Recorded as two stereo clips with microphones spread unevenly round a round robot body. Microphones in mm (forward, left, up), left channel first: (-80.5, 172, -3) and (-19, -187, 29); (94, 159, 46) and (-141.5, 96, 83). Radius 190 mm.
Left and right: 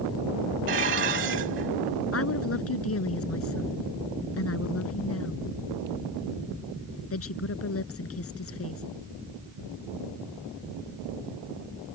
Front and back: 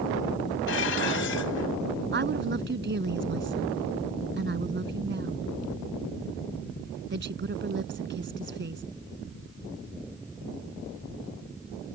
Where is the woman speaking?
150° left.